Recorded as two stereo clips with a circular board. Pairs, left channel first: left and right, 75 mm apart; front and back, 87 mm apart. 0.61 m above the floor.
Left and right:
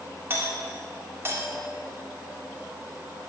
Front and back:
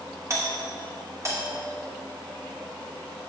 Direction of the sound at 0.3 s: 140° right.